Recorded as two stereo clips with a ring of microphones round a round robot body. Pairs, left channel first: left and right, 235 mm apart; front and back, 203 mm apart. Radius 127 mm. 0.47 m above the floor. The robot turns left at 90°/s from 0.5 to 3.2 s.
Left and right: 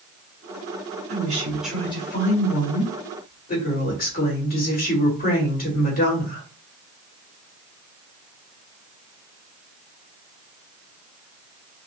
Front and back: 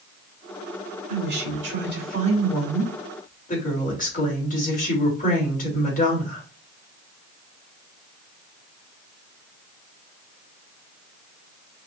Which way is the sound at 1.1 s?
125° right.